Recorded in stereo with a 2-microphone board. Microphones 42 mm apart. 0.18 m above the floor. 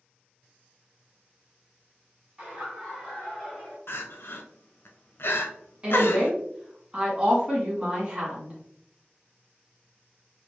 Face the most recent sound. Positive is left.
turn(degrees=-20)  # may be behind; listen again after turning